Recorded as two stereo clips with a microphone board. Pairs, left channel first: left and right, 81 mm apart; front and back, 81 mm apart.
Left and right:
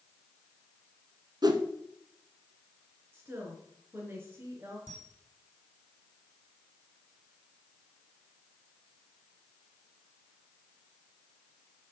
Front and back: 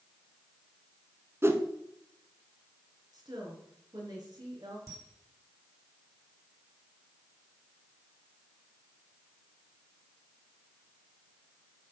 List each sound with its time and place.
1.4 s a whoosh: 120° right, 1.2 m
3.1 s a woman speaking: 150° right, 3.5 m
4.9 s a camera shutter: 140° left, 2.5 m